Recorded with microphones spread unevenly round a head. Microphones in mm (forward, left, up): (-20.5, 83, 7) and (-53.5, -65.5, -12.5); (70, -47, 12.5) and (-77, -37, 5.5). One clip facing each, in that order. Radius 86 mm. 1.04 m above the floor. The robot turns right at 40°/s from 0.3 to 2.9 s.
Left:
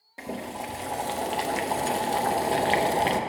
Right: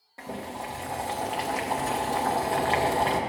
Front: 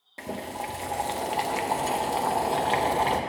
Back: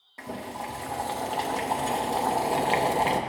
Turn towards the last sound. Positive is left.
turn(degrees=120)